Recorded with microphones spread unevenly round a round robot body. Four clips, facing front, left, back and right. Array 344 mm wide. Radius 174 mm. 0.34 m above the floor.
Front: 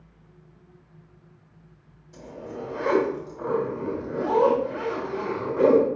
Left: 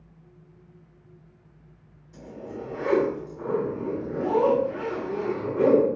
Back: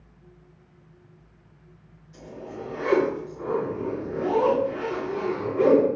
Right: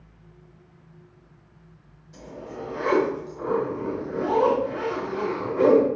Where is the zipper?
10° right, 2 m.